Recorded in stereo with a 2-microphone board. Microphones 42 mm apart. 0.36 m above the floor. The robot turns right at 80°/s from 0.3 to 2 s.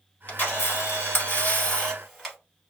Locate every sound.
0.3 s a camera shutter: 40° left, 1.2 m; by 2.4 s 175° left, 1.2 m